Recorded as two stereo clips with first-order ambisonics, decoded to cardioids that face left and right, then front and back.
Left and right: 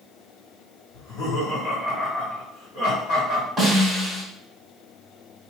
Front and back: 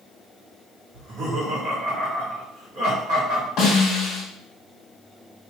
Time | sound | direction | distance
0.9 | laughter | 140° left | 1.9 m
3.6 | a snare drum | 5° right | 1.7 m